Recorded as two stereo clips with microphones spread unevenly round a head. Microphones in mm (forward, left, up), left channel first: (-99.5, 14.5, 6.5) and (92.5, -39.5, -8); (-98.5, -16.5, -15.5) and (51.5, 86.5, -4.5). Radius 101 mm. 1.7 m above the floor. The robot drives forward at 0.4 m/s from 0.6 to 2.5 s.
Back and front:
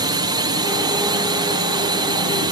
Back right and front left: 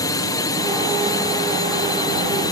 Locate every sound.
0.0 s a drone: 80° right